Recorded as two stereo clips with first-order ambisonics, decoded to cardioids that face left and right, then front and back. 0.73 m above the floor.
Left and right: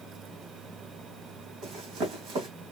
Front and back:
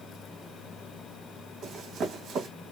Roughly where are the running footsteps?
Behind right.